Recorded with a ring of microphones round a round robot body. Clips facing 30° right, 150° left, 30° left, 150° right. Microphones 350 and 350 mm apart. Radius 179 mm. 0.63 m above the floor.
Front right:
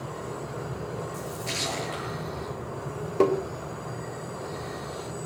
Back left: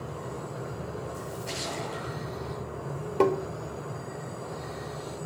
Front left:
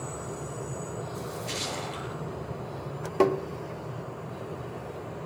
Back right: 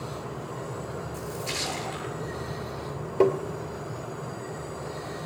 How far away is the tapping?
About 1.4 m.